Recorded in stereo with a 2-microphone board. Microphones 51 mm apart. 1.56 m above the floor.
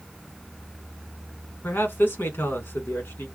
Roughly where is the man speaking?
Left.